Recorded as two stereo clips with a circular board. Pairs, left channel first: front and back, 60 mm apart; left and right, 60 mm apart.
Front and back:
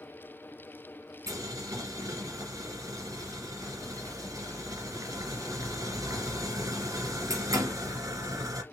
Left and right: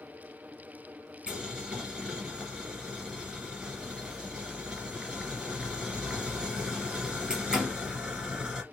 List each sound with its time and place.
1.3 s boiling: 165° right, 1.7 m